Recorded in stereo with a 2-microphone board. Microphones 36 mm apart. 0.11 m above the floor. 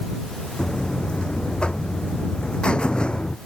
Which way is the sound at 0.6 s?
30° left (ahead or behind).